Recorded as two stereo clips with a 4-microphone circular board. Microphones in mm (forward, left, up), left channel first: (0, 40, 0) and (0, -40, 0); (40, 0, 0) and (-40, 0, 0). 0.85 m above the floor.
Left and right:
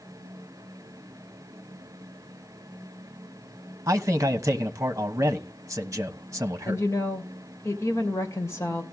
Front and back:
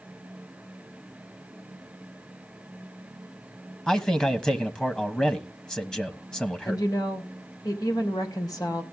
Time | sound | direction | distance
3.9 | a man speaking | 75° right | 1.1 m
6.7 | a woman speaking | 35° left | 3 m